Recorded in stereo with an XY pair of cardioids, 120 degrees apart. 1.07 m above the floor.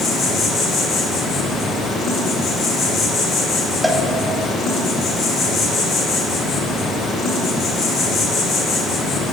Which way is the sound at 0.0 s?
70° left.